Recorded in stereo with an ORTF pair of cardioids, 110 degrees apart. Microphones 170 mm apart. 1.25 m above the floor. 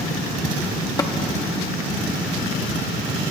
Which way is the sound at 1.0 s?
25° left.